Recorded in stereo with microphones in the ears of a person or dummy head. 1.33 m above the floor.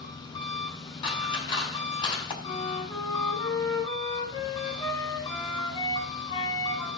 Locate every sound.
0.0 s an engine running: 30° left (ahead or behind), 6 m
1.0 s scissors: 30° left (ahead or behind), 6 m
2.4 s a flute: 35° left (ahead or behind), 9.5 m